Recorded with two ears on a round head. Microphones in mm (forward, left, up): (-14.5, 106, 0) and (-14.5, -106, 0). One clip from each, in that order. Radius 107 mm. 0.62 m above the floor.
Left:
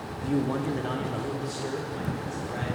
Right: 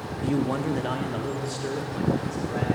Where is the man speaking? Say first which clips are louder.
Right 2 dB; 15° right (ahead or behind), 0.6 m; by 2.7 s 5° right (ahead or behind), 2 m.